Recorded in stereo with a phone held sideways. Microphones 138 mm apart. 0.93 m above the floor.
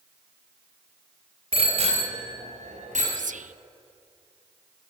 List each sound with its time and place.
1.5 s a bicycle bell: 45° right (ahead or behind), 3 m; by 3.0 s 60° right (ahead or behind), 4.5 m
3.1 s whispering: 65° right (ahead or behind), 0.5 m